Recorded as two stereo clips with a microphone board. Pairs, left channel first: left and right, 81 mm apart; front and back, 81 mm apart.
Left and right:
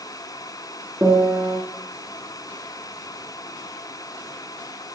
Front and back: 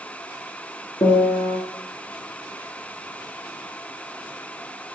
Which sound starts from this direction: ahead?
A piano, at 1.0 s.